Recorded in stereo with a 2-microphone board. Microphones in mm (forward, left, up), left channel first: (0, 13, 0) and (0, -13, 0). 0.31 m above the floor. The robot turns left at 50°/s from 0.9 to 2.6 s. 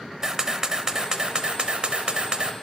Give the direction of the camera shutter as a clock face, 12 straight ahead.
1 o'clock.